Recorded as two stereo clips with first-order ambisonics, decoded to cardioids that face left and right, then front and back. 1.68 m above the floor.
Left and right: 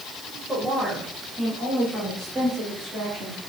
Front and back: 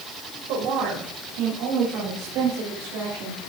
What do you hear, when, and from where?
0.5 s a woman speaking: 175° right, 3 m; by 3.4 s 165° right, 5 m